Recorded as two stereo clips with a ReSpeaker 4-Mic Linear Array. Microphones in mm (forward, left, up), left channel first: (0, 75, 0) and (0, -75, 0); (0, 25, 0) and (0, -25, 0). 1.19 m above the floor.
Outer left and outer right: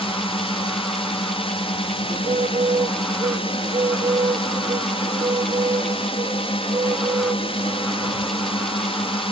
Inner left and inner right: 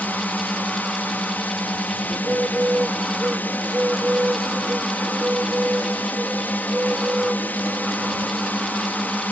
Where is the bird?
40° right (ahead or behind).